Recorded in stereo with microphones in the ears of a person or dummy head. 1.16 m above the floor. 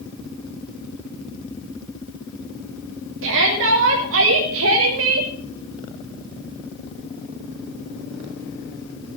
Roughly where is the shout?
Right.